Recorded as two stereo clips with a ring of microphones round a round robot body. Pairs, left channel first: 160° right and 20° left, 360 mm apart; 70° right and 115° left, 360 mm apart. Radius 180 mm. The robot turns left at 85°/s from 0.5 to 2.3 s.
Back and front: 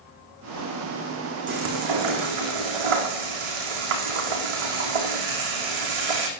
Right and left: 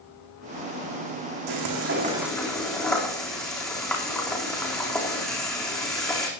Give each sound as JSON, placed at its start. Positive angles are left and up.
{"t": 1.5, "sound": "frying", "azimuth_deg": 90, "distance_m": 4.0}